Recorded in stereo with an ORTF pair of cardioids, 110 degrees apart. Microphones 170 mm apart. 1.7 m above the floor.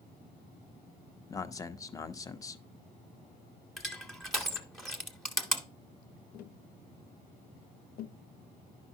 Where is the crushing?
Straight ahead, 1.1 m.